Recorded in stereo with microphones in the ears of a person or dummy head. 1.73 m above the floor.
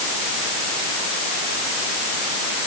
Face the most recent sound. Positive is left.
No sound to turn to.